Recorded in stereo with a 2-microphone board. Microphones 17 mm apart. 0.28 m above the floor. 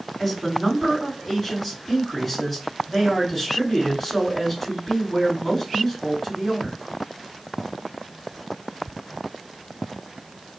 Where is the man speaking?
15° left (ahead or behind), 2 m.